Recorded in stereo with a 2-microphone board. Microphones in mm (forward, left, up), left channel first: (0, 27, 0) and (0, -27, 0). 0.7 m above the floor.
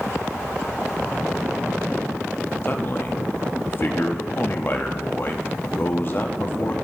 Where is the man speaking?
40° left (ahead or behind), 0.7 m.